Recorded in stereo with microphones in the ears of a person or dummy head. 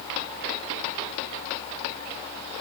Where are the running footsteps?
I don't hear running footsteps.